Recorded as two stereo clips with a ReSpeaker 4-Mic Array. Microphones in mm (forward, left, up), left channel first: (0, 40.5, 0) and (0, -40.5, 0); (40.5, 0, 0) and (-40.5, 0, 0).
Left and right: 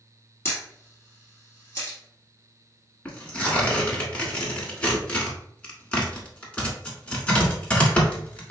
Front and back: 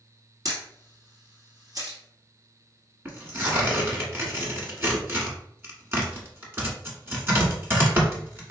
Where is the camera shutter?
145° left, 2.0 m.